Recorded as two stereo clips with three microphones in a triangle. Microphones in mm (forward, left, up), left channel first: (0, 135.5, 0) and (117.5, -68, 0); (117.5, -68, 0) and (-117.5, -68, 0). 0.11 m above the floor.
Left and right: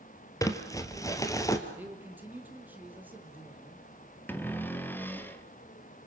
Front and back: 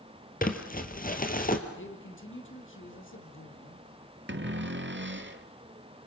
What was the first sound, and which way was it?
Crumpling, 45° left.